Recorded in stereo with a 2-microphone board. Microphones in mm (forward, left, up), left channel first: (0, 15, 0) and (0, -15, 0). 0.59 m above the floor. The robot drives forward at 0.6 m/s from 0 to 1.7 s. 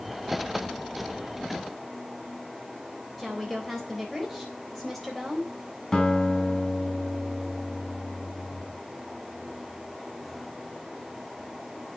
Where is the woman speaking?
Centre (ahead or behind), 3.5 m.